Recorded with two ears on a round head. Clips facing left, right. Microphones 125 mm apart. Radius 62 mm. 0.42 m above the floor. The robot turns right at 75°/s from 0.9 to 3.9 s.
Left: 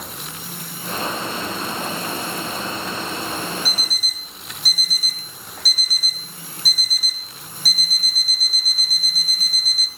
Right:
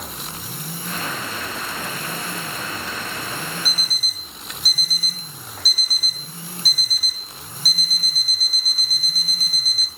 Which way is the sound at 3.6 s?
65° left (ahead or behind).